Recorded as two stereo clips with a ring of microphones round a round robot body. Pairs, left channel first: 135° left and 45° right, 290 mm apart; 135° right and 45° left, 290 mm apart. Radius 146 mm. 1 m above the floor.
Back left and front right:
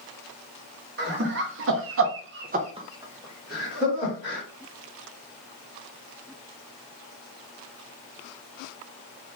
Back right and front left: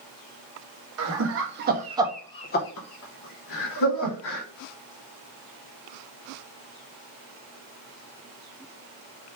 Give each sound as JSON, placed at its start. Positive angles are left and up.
{"t": 1.0, "sound": "laughter", "azimuth_deg": 10, "distance_m": 1.2}